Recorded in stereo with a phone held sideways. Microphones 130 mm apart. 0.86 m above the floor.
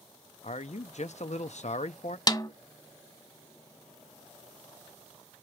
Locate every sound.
0.4 s a man speaking: 65° left (ahead or behind), 0.7 m
2.3 s a snare drum: 35° left (ahead or behind), 1.6 m